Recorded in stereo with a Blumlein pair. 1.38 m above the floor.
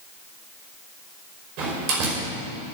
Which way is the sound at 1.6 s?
40° right.